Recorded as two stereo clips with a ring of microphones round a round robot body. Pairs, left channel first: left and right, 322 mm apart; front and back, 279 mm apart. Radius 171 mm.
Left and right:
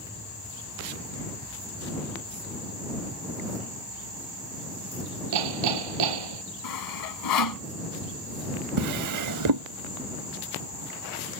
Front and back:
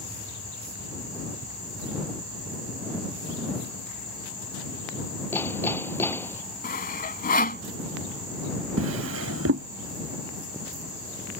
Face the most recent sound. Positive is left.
turn(degrees=-125)